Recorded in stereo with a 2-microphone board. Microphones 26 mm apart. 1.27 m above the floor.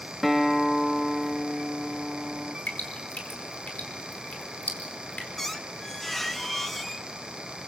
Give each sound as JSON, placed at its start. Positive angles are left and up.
{"t": 0.2, "sound": "a guitar", "side_deg": 0, "distance_m": 1.4}
{"t": 2.7, "sound": "dripping", "side_deg": 80, "distance_m": 4.5}
{"t": 5.4, "sound": "a squeak", "side_deg": 10, "distance_m": 1.1}